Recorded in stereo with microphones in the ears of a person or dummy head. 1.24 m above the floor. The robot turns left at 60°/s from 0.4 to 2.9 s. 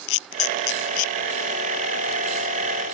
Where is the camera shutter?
85° left; by 1.1 s 40° left (ahead or behind).